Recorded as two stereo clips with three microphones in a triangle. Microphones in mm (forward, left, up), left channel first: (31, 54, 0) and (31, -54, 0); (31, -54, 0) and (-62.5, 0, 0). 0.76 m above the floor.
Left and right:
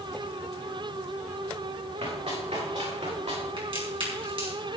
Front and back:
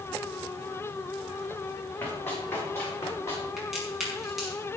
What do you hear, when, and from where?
2.0 s running footsteps: 100° right, 6.5 m; by 3.5 s 90° right, 7 m
3.6 s a crack: 125° right, 6 m